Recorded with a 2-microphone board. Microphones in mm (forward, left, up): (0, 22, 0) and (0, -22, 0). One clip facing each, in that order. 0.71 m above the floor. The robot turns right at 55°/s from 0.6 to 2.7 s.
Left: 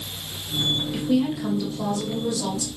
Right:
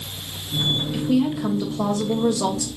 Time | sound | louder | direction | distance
0.9 | a woman speaking | right 2 dB | 175° left | 2.5 m